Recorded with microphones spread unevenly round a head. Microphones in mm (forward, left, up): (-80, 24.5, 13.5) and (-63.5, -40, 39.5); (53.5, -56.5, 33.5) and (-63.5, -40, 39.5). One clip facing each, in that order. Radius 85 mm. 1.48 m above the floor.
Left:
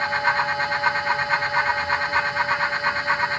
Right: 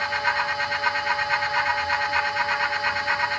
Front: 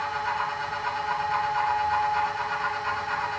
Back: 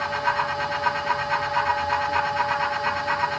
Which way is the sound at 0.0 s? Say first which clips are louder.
Left 3 dB, back 3 dB; 155° left.